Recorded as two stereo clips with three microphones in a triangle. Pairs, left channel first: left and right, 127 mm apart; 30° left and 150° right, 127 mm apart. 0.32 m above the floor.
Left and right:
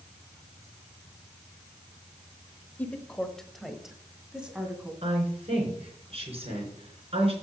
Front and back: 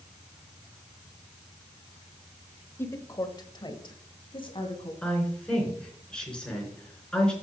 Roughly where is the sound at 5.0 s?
Ahead right.